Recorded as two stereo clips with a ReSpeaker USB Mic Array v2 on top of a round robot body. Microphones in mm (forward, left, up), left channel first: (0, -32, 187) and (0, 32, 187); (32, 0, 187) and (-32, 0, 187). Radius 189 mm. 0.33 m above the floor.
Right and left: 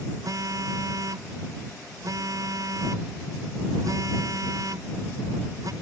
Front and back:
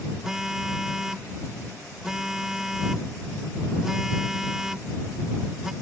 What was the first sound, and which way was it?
A phone buzzing, 100° left.